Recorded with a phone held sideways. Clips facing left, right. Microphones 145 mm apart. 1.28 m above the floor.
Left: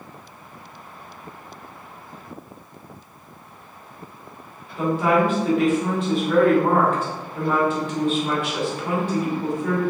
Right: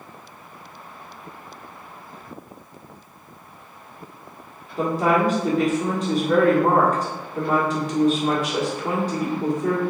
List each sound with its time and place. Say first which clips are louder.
4.8 s a woman speaking: left 1 dB; 40° right (ahead or behind), 1.4 m